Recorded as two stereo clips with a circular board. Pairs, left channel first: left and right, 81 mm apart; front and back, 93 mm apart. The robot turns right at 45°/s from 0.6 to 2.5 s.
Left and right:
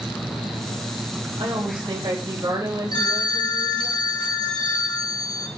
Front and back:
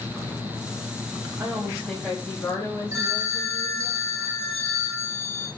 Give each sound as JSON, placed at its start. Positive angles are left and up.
{"t": 1.4, "sound": "a woman speaking", "azimuth_deg": -110, "distance_m": 4.0}
{"t": 2.9, "sound": "a phone ringing", "azimuth_deg": 120, "distance_m": 3.0}